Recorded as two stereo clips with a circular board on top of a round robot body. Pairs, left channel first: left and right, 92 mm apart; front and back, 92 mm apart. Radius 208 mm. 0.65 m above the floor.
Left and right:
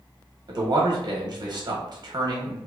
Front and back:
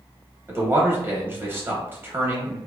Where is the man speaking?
120° right, 1.0 m.